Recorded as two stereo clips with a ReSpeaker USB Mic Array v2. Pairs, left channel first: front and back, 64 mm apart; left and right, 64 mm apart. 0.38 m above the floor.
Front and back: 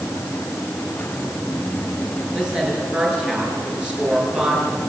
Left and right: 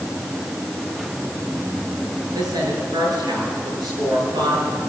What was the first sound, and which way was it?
A woman speaking, 105° right.